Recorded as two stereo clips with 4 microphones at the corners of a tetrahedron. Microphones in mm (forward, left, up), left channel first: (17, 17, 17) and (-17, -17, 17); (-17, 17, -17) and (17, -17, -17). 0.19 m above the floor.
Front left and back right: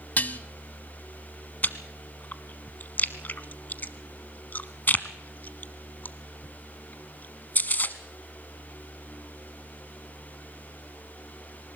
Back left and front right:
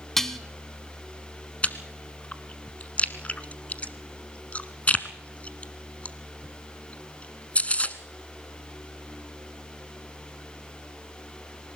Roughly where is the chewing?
Left.